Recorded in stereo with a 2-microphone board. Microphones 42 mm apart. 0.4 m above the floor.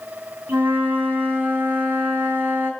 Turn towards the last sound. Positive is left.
turn(degrees=-65)  # may be behind; listen again after turning